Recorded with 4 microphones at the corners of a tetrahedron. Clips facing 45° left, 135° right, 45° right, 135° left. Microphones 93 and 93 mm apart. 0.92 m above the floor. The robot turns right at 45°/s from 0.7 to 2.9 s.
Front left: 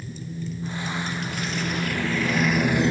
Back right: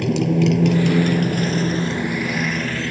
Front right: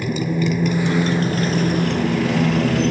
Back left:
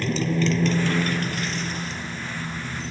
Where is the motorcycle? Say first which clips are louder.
Back right 17 dB, front right 2 dB; 125° right; by 2.9 s 25° right.